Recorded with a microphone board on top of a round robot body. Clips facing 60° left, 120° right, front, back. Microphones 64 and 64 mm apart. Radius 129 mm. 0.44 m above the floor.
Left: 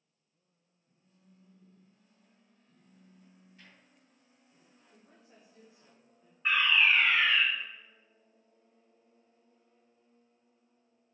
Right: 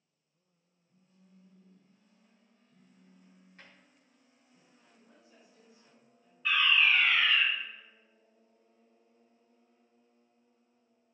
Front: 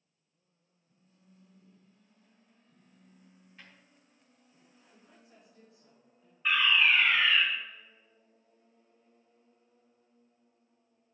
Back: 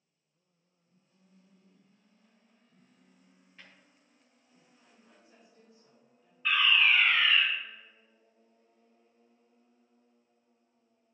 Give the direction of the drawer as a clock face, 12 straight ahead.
3 o'clock.